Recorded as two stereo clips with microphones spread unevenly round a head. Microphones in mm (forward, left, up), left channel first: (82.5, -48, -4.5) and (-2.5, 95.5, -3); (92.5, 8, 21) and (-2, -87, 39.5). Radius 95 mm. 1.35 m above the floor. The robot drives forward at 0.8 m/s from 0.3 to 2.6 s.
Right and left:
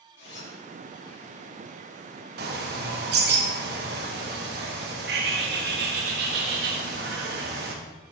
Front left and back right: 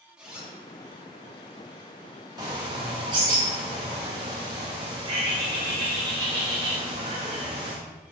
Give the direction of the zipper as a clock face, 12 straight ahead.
2 o'clock.